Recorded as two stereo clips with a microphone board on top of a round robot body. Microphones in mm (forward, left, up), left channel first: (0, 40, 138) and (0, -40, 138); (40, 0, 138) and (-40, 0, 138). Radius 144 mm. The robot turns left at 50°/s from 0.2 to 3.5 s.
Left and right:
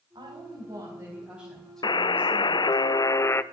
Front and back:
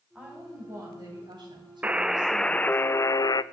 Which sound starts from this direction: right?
A woman speaking, at 0.1 s.